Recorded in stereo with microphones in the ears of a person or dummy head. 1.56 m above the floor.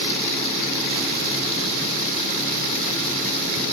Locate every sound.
Only background noise.